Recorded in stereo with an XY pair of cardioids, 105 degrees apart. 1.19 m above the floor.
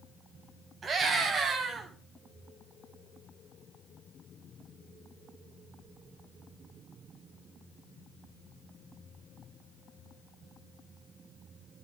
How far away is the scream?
About 7.5 m.